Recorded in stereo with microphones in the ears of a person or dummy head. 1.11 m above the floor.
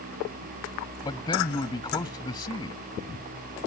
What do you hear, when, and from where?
1.0 s a man speaking: 20° left (ahead or behind)